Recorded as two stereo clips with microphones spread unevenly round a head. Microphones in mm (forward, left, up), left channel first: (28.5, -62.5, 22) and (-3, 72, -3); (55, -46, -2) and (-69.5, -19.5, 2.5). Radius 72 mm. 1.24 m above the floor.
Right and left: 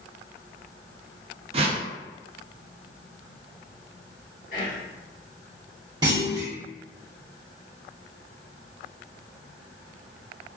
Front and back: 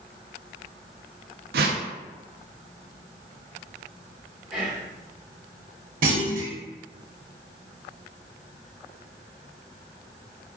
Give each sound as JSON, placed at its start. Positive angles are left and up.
{"t": 1.5, "sound": "a whoosh", "azimuth_deg": 155, "distance_m": 0.5}
{"t": 4.5, "sound": "whispering", "azimuth_deg": -105, "distance_m": 1.9}
{"t": 6.0, "sound": "a clunk", "azimuth_deg": 170, "distance_m": 1.0}